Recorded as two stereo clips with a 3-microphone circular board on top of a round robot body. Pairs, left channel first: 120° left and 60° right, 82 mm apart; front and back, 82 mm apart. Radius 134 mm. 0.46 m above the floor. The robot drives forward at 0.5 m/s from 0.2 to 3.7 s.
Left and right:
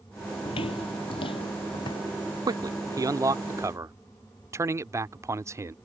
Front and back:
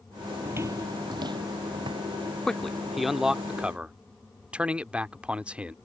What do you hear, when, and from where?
0.5 s footsteps: 110° left; by 2.3 s 155° left
2.5 s a man speaking: 80° right; by 5.8 s 105° right